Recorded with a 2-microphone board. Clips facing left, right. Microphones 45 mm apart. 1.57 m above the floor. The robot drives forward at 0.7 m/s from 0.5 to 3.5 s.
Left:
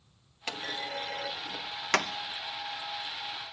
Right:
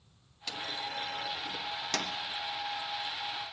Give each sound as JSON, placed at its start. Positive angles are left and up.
{"t": 0.5, "sound": "a clunk", "side_deg": 40, "distance_m": 0.9}